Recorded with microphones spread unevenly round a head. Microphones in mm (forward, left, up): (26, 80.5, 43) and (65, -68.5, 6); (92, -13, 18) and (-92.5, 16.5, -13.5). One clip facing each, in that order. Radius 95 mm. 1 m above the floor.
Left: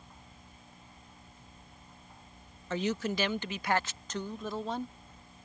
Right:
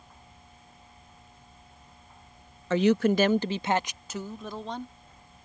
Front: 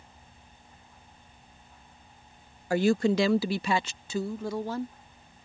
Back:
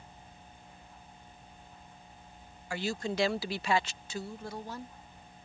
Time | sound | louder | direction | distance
2.7 | a woman speaking | right 10 dB, front 11 dB | 65° right | ?